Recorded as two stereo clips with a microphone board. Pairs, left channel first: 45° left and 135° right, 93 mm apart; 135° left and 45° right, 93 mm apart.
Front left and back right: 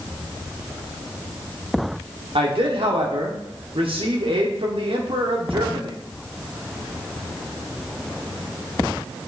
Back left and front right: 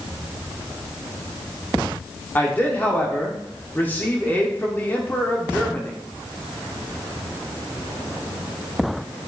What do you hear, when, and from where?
2.4 s a man speaking: 155° right, 1.1 m